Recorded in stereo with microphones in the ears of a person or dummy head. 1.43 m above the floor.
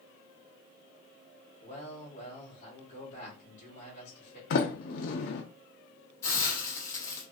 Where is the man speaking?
45° left (ahead or behind), 2 m.